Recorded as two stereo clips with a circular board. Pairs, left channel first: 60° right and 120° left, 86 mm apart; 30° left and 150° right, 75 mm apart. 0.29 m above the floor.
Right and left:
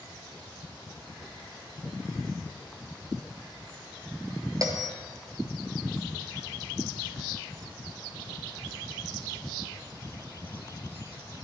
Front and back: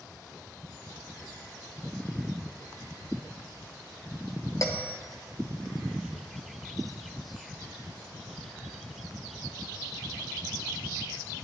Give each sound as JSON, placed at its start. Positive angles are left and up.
{"t": 4.6, "sound": "a bell", "azimuth_deg": 75, "distance_m": 1.4}